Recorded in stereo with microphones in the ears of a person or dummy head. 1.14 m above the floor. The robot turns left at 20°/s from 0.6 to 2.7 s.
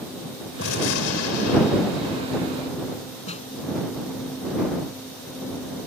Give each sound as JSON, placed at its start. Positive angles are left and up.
{"t": 0.6, "sound": "a gunshot", "azimuth_deg": 105}
{"t": 3.3, "sound": "a snare drum", "side_deg": 35}